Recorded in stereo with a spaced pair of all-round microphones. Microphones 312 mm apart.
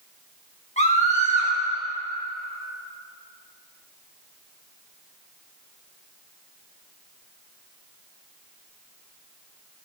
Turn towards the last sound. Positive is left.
turn(degrees=20)  # may be behind; listen again after turning